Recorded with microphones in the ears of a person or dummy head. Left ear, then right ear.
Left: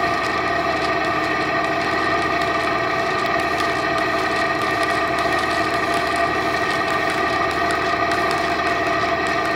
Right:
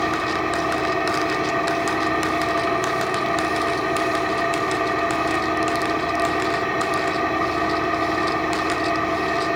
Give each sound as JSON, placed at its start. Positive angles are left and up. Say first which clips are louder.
{"t": 0.0, "sound": "an engine running", "louder": "left 2 dB", "side_deg": 25, "distance_m": 1.4}